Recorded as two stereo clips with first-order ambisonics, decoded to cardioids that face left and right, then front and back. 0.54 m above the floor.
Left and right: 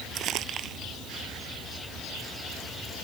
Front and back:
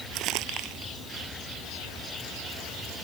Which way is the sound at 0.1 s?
140° right.